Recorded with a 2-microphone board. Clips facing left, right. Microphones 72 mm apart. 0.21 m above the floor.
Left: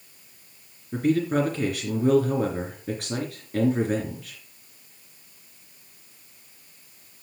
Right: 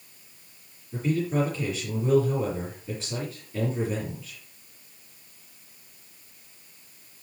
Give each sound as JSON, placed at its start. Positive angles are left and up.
{"t": 0.9, "sound": "a man speaking", "side_deg": 65, "distance_m": 3.5}